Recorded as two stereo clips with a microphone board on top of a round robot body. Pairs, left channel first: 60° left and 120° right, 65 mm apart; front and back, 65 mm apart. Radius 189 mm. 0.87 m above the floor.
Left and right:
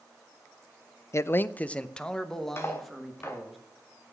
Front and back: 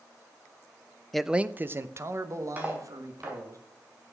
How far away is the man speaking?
About 0.5 m.